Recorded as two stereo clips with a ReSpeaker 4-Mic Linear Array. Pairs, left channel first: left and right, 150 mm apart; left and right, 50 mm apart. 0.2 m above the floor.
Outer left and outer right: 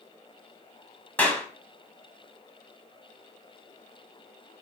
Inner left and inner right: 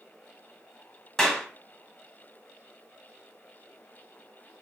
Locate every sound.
1.2 s a clap: 10° left (ahead or behind), 1.3 m